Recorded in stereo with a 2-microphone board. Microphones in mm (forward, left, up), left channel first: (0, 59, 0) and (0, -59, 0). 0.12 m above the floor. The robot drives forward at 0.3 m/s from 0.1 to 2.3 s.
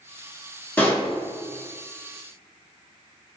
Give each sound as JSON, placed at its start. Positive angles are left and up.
{"t": 0.8, "sound": "a pop", "side_deg": 15, "distance_m": 1.1}